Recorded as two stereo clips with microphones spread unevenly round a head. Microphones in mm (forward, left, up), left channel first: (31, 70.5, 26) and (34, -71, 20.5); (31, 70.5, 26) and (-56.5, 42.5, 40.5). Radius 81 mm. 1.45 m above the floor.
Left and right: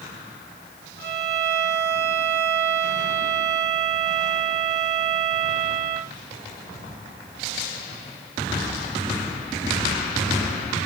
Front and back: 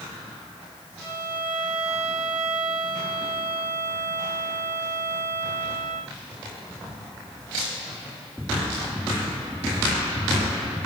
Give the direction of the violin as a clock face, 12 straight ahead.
3 o'clock.